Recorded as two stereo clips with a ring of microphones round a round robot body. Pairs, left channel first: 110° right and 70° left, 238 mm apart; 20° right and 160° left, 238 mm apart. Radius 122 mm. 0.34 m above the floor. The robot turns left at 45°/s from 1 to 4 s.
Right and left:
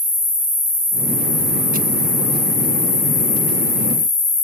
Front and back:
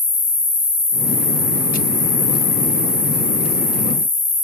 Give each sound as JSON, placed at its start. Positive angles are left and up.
{"t": 0.0, "sound": "an insect", "azimuth_deg": 20, "distance_m": 1.9}